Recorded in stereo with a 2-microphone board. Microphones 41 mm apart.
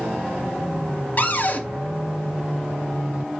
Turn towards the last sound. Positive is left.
turn(degrees=45)  # may be behind; listen again after turning